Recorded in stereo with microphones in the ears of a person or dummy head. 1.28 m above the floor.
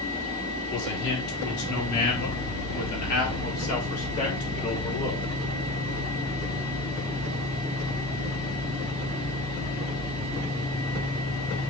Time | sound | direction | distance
0.7 | a man speaking | 65° left (ahead or behind) | 3 m